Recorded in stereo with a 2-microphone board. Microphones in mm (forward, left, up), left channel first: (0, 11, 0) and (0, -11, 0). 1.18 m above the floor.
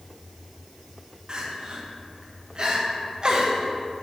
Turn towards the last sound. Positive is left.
turn(degrees=-40)  # may be behind; listen again after turning